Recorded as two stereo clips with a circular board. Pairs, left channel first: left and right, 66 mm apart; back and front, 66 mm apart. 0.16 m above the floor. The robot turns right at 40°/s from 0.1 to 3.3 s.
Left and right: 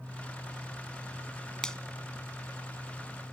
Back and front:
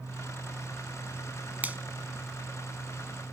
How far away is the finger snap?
About 0.9 m.